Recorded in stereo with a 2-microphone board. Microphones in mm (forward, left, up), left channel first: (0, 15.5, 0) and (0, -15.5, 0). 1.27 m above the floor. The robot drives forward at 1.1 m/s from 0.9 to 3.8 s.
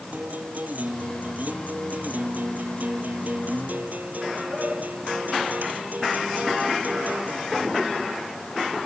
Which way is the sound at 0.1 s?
60° right (ahead or behind).